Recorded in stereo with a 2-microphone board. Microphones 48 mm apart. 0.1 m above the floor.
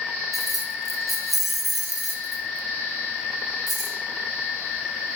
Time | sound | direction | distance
0.3 | keys jangling | centre (ahead or behind) | 1.1 m